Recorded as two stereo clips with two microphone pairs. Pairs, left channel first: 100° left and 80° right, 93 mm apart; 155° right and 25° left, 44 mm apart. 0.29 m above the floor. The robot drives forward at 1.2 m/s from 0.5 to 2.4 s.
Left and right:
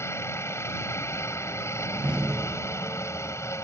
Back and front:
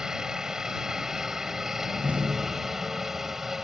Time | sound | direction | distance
0.0 | a helicopter | 85° left | ?
1.8 | a door slam | straight ahead | ?